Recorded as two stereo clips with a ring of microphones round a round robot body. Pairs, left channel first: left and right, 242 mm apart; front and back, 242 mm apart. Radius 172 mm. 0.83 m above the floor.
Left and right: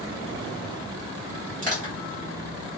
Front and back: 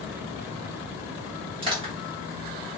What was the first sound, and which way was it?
Crushing, 120° right.